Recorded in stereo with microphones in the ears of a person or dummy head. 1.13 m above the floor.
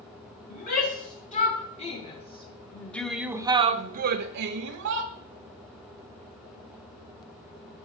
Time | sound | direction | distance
0.5 | a shout | 50° left (ahead or behind) | 1.8 m